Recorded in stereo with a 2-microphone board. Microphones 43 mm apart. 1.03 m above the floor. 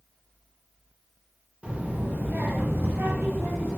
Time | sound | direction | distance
1.6 | a child speaking | 25° right (ahead or behind) | 0.8 m